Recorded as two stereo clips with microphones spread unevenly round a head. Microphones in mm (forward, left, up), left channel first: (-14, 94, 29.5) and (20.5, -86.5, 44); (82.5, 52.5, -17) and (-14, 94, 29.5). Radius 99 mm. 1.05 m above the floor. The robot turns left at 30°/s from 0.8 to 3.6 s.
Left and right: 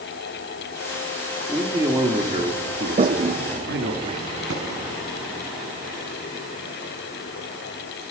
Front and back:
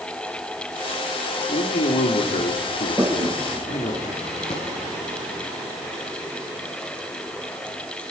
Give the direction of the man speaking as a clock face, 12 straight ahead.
12 o'clock.